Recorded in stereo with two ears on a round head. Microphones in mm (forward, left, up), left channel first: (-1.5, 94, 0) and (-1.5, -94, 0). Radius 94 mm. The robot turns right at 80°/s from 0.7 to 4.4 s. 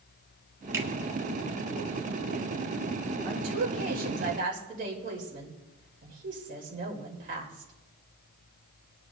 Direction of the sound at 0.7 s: 15° right (ahead or behind).